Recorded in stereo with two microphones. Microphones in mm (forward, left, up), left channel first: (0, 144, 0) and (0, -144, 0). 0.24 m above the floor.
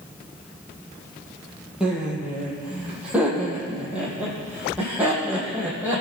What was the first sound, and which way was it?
Laughter, 5° right (ahead or behind).